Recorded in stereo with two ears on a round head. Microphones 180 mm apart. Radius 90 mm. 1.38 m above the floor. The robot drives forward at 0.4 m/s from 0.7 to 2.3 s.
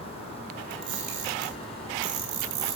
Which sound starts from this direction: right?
A camera shutter, at 0.7 s.